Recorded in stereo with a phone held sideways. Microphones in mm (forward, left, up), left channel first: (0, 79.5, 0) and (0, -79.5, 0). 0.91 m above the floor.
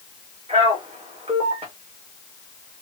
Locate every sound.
0.5 s a man speaking: 40° right (ahead or behind), 1.0 m